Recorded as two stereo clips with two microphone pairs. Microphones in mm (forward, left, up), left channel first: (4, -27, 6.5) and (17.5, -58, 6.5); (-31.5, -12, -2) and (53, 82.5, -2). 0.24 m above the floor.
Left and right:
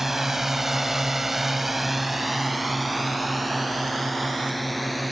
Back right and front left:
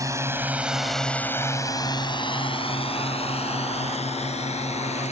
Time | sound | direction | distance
0.0 | a drone | 5° left | ?